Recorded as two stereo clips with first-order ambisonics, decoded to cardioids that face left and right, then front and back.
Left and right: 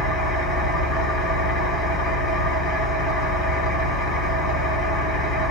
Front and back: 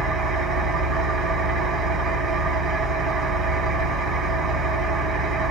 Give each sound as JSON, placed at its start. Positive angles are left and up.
{"t": 0.0, "sound": "an engine running", "azimuth_deg": 125, "distance_m": 2.5}